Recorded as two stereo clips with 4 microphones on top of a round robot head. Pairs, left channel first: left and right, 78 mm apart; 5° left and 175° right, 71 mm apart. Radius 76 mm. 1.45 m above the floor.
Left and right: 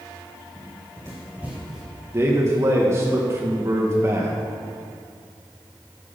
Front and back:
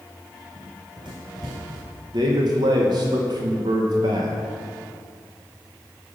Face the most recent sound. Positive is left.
turn(degrees=-150)